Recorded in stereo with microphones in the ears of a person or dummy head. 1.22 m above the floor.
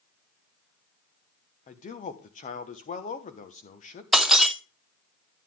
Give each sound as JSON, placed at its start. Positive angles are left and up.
{"t": 1.7, "sound": "a man speaking", "side_deg": 35, "distance_m": 1.0}
{"t": 4.1, "sound": "breaking glass", "side_deg": 0, "distance_m": 0.5}